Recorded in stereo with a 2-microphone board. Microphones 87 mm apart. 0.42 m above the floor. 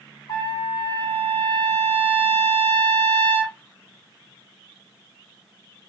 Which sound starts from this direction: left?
A trumpet, at 0.3 s.